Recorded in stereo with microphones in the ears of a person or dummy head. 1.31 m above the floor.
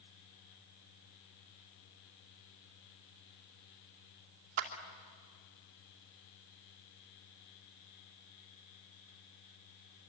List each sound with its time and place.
4.6 s a clap: 50° right (ahead or behind), 2.5 m